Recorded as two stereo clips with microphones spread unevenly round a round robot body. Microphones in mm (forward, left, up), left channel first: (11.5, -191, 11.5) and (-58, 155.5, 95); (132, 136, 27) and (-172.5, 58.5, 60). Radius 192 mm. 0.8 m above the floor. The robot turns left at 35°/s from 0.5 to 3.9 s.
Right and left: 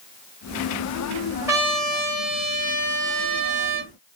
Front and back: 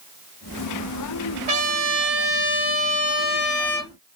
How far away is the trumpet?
About 1.3 m.